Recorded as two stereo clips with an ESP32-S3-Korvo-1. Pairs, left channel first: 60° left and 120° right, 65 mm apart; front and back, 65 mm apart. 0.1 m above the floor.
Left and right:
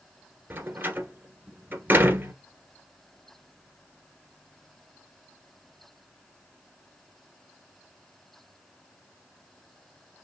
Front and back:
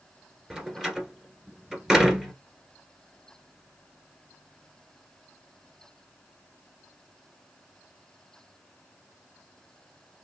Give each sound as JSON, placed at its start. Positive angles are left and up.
{"t": 0.5, "sound": "a door slam", "azimuth_deg": -105, "distance_m": 1.3}